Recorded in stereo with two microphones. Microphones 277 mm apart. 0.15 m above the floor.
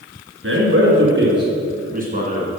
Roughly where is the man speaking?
Right.